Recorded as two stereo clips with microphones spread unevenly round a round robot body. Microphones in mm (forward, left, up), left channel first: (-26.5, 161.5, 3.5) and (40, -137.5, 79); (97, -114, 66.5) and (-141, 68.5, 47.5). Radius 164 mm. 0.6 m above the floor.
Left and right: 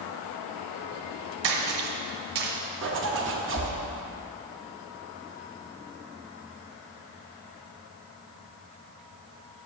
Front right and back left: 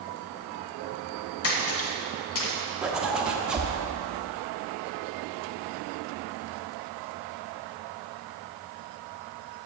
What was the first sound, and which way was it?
A splash, 80° right.